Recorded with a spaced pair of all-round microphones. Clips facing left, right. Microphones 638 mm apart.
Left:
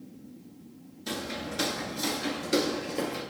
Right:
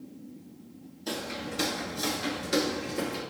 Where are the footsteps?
35° left (ahead or behind), 1.4 m; by 3.2 s 45° right (ahead or behind), 1.6 m.